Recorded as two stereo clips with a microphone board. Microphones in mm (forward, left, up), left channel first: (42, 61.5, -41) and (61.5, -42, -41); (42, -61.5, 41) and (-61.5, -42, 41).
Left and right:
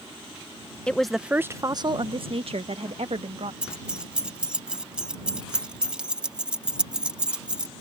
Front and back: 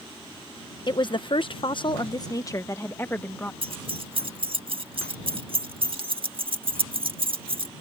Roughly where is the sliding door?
No sliding door in this recording.